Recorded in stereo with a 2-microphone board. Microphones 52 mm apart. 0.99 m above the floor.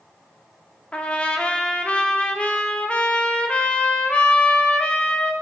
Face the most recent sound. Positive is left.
turn(degrees=25)  # may be behind; listen again after turning